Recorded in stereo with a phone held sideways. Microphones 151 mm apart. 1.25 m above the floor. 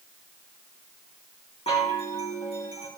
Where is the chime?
40° left (ahead or behind), 2 m.